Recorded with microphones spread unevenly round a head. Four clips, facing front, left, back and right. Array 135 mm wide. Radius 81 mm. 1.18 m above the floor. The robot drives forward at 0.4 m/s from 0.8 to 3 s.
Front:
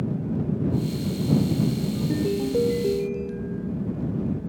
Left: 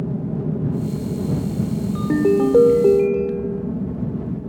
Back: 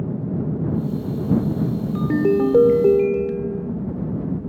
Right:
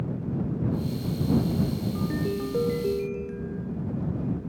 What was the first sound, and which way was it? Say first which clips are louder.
An aircraft: left 6 dB, back 2 dB; 125° left.